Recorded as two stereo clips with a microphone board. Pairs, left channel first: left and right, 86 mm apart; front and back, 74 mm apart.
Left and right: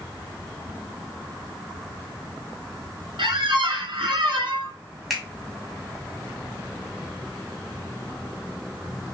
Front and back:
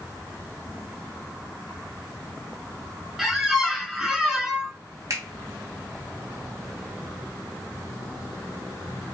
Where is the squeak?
95° right, 1.1 m.